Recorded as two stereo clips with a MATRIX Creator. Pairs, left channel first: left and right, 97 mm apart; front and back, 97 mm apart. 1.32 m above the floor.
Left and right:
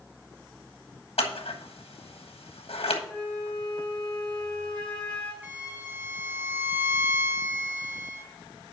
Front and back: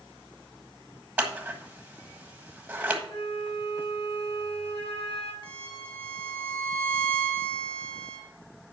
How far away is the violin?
About 1.8 m.